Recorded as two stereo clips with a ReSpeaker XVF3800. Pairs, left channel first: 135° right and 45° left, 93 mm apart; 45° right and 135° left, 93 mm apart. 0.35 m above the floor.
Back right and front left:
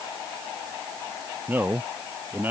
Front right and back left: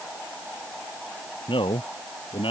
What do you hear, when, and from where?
1.5 s a man speaking: 25° right